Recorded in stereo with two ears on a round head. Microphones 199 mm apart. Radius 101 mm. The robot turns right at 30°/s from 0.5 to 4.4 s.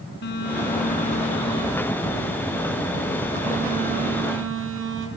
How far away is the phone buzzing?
About 4 m.